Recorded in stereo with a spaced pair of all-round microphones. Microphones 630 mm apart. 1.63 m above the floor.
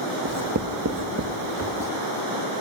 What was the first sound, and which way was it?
Writing, 25° right (ahead or behind).